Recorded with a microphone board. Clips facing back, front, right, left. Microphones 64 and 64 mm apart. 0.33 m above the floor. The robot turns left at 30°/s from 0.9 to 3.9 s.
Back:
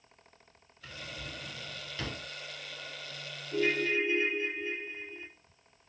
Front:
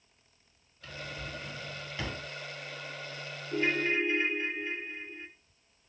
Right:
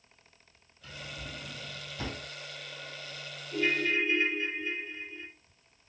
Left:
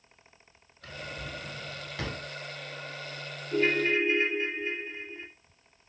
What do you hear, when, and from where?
0.8 s a drawer: 105° left, 0.9 m; by 2.2 s 65° left, 0.9 m
3.5 s a ringtone: 50° left, 0.7 m; by 5.3 s 40° left, 0.7 m